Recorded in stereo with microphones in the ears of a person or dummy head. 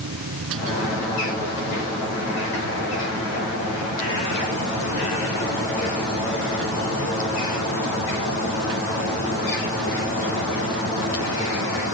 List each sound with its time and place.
0.0 s a machine running: 75° right (ahead or behind)